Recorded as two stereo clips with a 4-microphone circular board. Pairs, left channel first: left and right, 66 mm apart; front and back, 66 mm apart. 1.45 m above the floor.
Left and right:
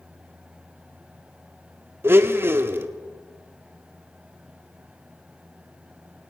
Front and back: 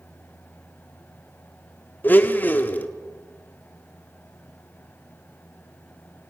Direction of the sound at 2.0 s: 50° right.